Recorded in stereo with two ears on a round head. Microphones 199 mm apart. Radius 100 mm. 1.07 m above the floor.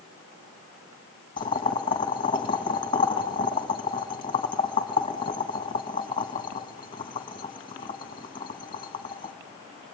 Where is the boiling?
25° left (ahead or behind), 1.7 m.